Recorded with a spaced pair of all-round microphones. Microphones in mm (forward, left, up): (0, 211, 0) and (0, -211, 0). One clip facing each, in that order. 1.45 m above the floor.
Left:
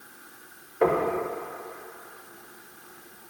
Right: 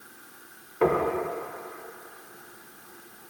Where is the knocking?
20° right (ahead or behind), 0.9 m.